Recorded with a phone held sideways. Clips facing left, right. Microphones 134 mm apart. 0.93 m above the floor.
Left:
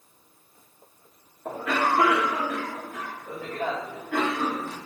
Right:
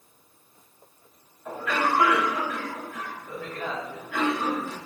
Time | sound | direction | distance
1.4 | a cough | 60° left (ahead or behind) | 1.1 m